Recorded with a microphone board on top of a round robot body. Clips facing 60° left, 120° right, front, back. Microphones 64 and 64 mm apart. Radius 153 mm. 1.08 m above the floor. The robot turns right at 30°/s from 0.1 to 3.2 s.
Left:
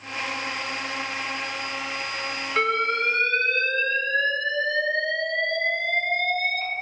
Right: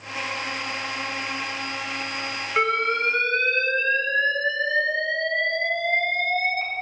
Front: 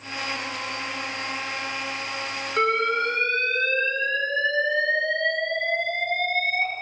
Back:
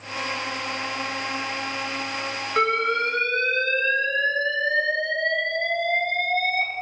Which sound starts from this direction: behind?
An alarm, at 2.6 s.